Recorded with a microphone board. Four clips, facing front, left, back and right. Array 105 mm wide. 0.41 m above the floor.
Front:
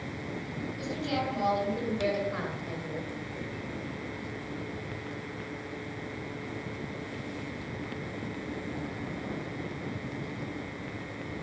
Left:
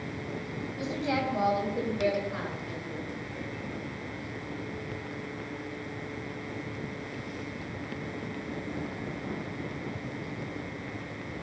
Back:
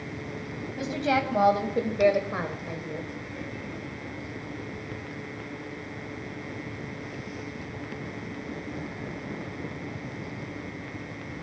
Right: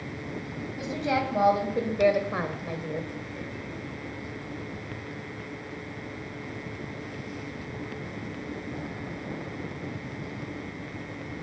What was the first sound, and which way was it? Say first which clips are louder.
A woman speaking: right 3 dB, back 7 dB; 175° right.